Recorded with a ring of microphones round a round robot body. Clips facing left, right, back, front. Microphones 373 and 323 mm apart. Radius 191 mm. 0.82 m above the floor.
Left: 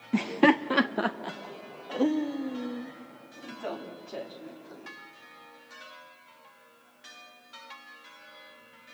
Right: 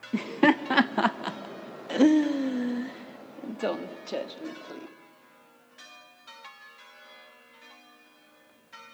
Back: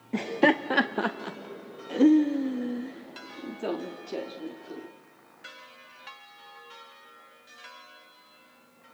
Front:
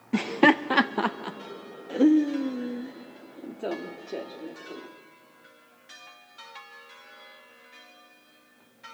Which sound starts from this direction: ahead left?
Laughter, at 0.1 s.